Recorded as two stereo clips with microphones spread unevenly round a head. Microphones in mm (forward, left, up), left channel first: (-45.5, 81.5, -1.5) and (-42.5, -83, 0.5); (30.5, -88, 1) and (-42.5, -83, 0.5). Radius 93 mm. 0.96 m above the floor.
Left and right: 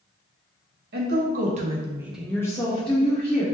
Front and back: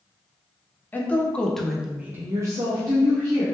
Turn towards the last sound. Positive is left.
turn(degrees=140)